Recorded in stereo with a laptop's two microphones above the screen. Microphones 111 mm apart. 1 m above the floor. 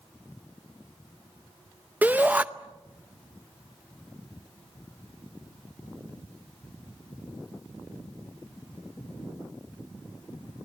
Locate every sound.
2.0 s a shout: 15° right (ahead or behind), 0.7 m